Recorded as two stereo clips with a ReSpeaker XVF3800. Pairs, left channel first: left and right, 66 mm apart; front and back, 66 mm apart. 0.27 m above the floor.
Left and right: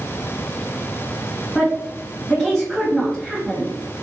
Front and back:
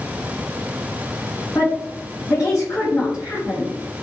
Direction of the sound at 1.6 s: Straight ahead.